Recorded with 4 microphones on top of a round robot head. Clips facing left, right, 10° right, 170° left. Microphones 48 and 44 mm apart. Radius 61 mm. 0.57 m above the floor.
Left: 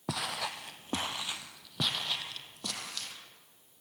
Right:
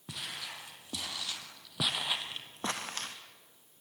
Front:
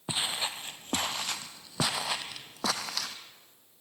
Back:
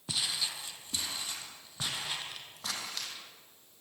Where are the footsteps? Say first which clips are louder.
Left 7 dB, front 3 dB; 55° left, 1.1 m; by 3.2 s 30° right, 1.4 m.